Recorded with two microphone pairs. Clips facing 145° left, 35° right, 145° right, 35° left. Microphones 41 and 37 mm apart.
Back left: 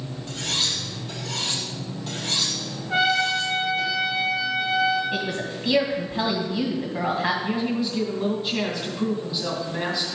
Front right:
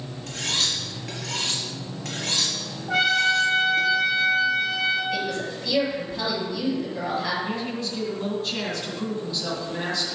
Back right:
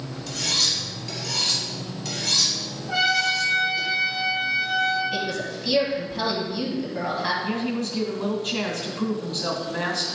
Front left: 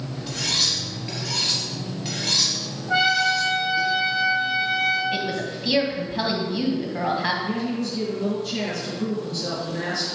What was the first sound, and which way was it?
Cutlery clinking, 30° right.